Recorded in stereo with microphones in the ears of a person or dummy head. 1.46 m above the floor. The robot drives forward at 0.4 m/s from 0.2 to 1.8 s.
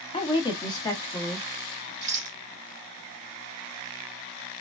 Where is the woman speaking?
30° left (ahead or behind), 0.7 m; by 1.5 s 20° left (ahead or behind), 1.2 m.